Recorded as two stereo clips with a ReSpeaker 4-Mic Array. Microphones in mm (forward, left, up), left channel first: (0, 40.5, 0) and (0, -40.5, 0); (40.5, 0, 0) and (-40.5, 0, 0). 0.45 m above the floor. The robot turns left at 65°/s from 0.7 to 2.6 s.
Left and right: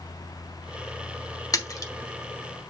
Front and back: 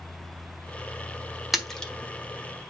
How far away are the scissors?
I don't hear scissors.